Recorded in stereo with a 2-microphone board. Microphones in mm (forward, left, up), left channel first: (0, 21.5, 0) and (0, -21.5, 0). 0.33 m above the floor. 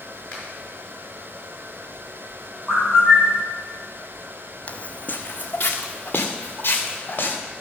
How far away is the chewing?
No chewing in this recording.